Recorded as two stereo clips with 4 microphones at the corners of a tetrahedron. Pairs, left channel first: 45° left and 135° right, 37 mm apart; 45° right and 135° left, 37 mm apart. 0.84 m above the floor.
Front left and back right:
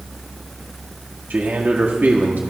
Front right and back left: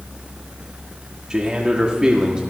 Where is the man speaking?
160° right, 1.5 m.